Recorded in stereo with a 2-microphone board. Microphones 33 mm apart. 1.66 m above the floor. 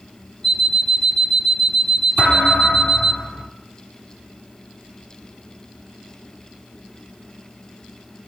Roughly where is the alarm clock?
Centre.